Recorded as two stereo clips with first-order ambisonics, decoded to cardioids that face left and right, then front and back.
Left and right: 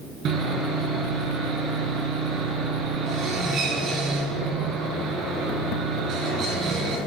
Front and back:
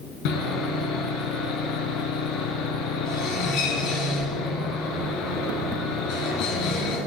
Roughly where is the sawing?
Ahead right.